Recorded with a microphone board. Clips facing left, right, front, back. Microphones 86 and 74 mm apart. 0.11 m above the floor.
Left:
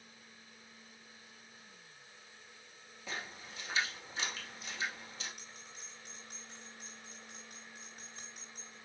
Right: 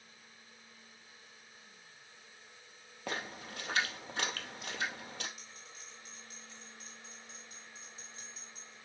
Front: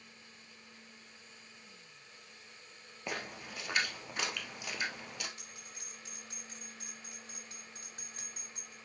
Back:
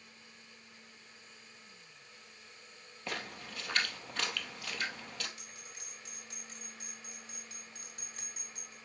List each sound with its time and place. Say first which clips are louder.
3.1 s a splash: right 4 dB, front 1 dB; 75° right, 1.9 m
5.4 s a bell: even, even; 55° left, 5.5 m